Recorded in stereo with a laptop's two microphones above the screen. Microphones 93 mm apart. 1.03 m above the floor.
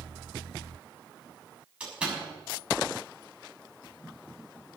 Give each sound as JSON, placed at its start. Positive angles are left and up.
{"t": 1.8, "sound": "a door slam", "side_deg": -10, "distance_m": 7.0}